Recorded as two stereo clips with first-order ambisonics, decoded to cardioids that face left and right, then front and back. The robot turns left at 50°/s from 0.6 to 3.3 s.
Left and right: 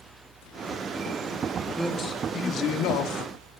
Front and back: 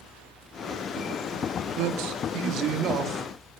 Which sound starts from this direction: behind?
A man speaking, at 1.8 s.